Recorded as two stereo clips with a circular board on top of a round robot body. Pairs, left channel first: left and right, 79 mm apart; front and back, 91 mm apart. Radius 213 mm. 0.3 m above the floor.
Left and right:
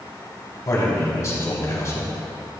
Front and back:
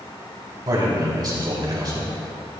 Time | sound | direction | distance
0.7 | a man speaking | 140° left | 4 m